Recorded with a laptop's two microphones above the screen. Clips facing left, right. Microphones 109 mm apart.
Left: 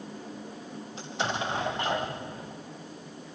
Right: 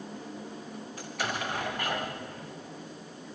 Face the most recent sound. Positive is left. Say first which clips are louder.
# left 3 dB
turn(degrees=25)  # may be behind; listen again after turning